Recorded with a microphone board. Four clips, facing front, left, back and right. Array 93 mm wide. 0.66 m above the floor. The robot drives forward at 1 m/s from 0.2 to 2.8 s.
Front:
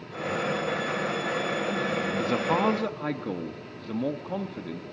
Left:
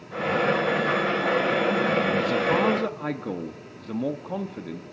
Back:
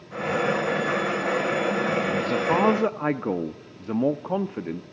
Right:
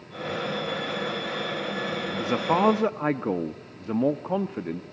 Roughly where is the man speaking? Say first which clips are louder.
Even, back 2 dB; ahead right.